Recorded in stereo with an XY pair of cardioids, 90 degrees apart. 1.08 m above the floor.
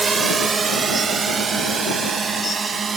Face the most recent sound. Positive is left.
turn(degrees=-45)